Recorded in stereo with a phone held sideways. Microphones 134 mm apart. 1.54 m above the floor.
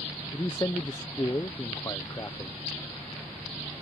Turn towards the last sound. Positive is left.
turn(degrees=25)  # may be behind; listen again after turning